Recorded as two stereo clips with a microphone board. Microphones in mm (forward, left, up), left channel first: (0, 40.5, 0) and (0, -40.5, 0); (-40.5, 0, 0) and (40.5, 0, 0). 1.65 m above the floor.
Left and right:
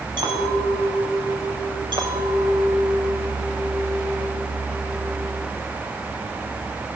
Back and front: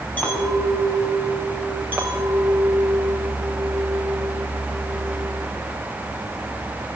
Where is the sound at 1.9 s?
70° right, 5.5 m.